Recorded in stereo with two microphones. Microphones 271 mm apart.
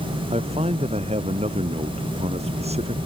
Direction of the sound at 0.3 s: 25° right (ahead or behind).